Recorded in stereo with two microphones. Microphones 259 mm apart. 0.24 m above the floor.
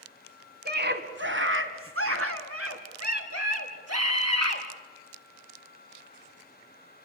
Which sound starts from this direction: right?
A scream, at 0.7 s.